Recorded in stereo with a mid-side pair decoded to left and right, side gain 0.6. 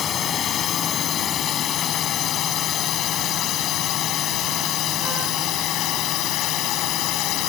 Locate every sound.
0.0 s a drone: 50° left; by 7.5 s 70° left